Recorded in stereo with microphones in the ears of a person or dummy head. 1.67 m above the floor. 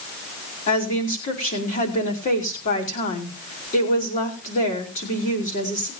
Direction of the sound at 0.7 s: 40° left (ahead or behind).